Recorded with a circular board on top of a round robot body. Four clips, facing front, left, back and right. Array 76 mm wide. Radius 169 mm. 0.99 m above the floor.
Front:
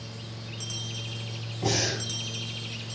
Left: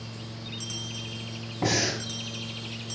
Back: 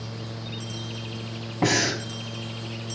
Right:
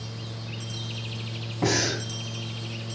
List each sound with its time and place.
1.6 s breathing: straight behind, 4.5 m